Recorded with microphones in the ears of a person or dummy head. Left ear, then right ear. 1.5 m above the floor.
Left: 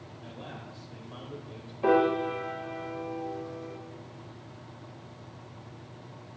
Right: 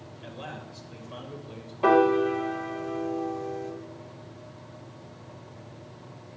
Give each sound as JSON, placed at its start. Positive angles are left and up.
{"t": 0.2, "sound": "a man speaking", "side_deg": -35, "distance_m": 2.0}
{"t": 1.8, "sound": "a piano", "side_deg": -35, "distance_m": 2.0}